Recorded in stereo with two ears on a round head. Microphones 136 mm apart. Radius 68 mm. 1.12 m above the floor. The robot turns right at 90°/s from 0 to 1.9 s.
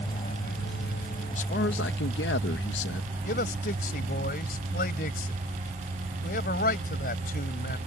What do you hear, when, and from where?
0.0 s an aircraft: 20° left (ahead or behind); by 7.9 s 45° right (ahead or behind)
1.3 s a man speaking: 40° left; by 3.1 s 95° left
3.2 s a man speaking: 60° left (ahead or behind)